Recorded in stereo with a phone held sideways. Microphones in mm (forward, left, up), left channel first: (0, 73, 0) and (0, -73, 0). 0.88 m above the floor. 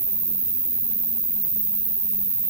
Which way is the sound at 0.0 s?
65° right (ahead or behind).